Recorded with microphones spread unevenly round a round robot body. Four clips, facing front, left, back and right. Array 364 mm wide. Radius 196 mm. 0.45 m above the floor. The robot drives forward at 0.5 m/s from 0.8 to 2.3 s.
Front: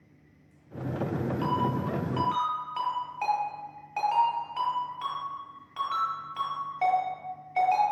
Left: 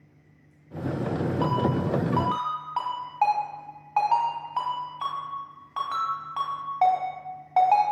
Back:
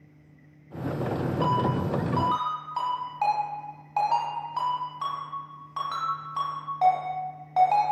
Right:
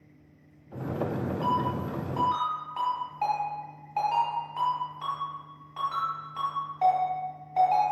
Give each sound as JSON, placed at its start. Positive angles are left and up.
{"t": 1.4, "sound": "a ringtone", "azimuth_deg": 80, "distance_m": 2.5}